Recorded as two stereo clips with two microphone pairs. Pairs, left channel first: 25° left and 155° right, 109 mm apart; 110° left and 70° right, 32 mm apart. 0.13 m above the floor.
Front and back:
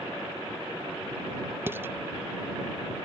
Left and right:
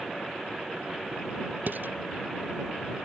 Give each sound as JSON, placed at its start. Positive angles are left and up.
{"t": 1.7, "sound": "dishes clattering", "azimuth_deg": -85}